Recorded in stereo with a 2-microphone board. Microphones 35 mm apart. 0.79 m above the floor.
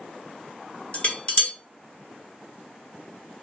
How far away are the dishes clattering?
About 0.8 m.